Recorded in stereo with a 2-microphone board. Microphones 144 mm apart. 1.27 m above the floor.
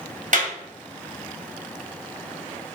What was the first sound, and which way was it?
A clap, 60° right (ahead or behind).